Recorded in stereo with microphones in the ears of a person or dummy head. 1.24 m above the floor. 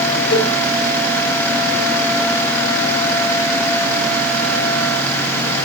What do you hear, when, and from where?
0.3 s a cowbell: 70° left (ahead or behind), 3.5 m